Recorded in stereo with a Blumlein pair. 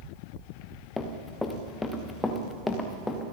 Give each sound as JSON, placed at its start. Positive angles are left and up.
{"t": 1.0, "sound": "running footsteps", "azimuth_deg": 10, "distance_m": 4.5}